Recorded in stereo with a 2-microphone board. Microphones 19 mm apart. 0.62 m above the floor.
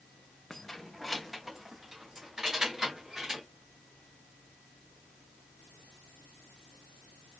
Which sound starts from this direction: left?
Keys jangling, at 0.5 s.